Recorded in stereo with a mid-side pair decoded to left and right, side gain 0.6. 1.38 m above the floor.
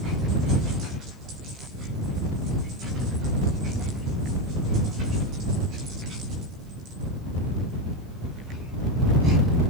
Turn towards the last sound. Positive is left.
No sound to turn to.